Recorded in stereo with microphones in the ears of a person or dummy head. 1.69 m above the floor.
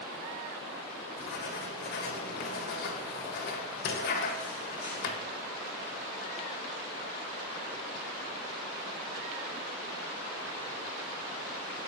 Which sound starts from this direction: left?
Writing, at 1.2 s.